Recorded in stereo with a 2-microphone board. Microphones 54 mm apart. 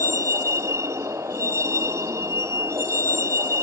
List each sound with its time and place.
0.0 s a vehicle: 60° right (ahead or behind)